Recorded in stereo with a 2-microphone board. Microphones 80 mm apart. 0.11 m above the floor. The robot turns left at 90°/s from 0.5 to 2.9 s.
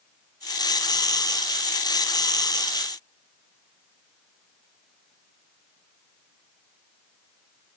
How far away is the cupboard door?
No cupboard door in this recording.